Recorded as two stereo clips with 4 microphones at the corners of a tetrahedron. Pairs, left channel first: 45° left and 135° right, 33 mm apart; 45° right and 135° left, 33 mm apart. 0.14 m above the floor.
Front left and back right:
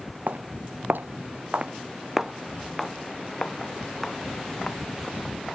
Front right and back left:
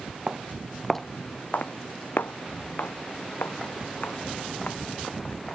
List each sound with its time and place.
0.3 s footsteps: 160° right; by 5.4 s 25° right